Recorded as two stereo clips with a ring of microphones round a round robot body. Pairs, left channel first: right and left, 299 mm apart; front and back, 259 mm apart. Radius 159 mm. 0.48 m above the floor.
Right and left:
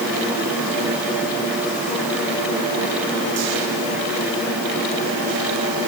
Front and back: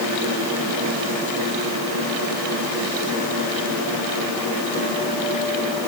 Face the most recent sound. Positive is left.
No sound to turn to.